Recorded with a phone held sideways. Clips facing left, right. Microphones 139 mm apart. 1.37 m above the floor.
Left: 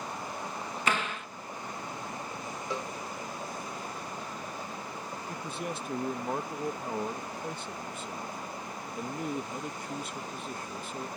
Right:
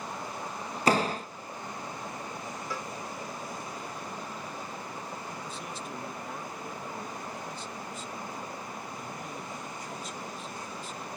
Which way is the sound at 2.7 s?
20° left (ahead or behind).